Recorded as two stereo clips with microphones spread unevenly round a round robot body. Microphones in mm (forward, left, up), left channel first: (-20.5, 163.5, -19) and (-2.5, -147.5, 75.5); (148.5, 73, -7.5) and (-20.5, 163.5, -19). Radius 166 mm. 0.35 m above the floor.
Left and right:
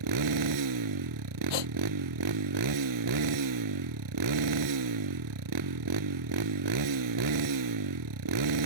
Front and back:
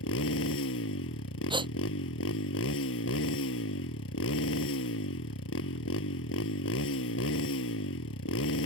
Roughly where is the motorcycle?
Ahead right.